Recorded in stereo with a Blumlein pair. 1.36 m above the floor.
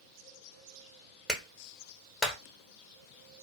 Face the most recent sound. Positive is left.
turn(degrees=0)